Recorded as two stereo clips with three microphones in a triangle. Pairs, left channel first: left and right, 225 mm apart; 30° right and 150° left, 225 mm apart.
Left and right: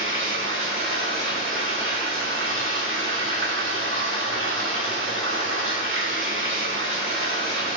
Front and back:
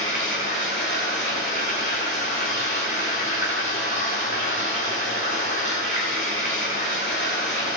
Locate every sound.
0.0 s running water: 65° right, 2.5 m